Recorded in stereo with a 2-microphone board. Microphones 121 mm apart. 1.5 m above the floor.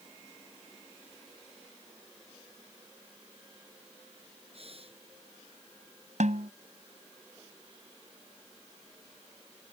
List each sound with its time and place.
4.5 s breathing: 55° right (ahead or behind)
6.2 s a snare drum: 80° right